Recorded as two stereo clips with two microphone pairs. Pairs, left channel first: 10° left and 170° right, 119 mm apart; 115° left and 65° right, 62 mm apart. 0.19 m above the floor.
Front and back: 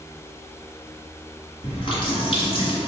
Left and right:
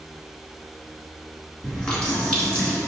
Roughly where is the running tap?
Ahead left.